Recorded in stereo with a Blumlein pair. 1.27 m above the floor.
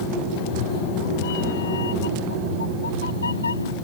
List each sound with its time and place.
0.3 s a cat meowing: 45° left; by 3.8 s 75° left